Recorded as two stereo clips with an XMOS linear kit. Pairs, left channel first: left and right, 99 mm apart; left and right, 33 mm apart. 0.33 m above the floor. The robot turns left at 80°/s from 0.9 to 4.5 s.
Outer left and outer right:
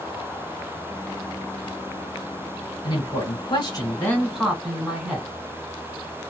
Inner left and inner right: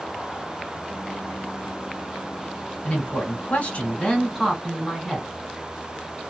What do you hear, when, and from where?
2.8 s a man speaking: 125° left, 2 m; by 5.3 s 10° right, 2 m